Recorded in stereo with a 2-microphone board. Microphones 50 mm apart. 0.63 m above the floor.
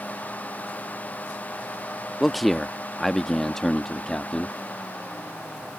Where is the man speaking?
Centre (ahead or behind); by 4.5 s 10° left (ahead or behind).